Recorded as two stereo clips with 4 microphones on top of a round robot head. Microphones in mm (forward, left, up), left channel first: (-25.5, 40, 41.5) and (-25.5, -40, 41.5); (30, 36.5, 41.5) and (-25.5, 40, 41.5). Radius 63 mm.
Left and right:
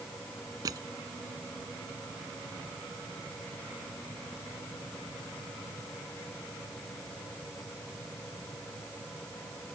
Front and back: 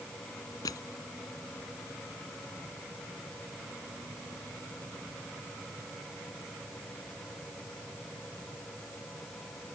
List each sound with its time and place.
0.7 s crushing: 35° right